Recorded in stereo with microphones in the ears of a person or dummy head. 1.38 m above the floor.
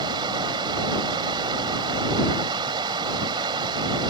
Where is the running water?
20° right (ahead or behind).